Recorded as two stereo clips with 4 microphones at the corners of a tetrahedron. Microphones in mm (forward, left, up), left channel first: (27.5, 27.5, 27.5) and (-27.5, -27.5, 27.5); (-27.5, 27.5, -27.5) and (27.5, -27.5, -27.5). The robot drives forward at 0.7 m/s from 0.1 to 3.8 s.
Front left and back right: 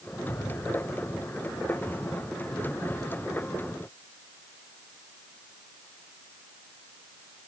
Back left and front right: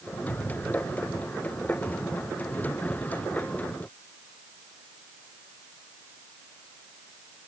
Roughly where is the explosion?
Left.